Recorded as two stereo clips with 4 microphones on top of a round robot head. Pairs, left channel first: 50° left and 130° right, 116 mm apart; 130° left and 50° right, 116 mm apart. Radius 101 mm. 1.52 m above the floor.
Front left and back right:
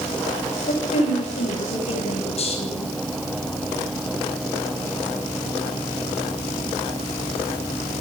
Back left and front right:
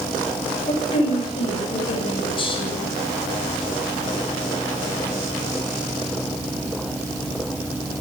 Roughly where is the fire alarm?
I don't hear a fire alarm.